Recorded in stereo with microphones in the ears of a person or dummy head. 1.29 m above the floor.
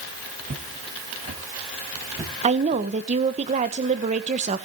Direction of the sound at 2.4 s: 30° right (ahead or behind).